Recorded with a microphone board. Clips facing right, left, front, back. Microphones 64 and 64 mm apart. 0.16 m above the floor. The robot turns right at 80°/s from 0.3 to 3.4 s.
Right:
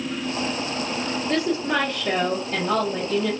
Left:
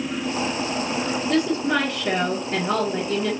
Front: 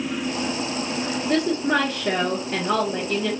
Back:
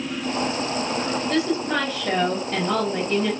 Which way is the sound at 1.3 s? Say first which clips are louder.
Left 2 dB, front 4 dB; 35° right.